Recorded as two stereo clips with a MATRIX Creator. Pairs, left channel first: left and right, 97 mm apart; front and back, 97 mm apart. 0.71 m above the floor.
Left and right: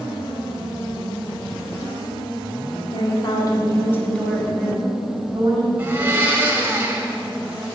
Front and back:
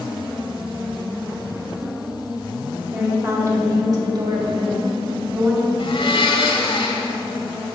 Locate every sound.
2.9 s a woman speaking: 115° left, 2.5 m; by 5.7 s 130° right, 2.5 m
5.8 s a blender: 20° right, 1.4 m